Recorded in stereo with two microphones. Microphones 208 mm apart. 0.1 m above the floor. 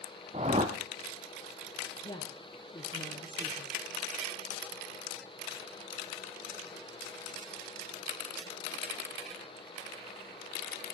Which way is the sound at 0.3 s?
35° right (ahead or behind).